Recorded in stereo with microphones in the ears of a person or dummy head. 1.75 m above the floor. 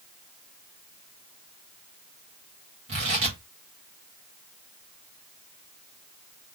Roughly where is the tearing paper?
Right.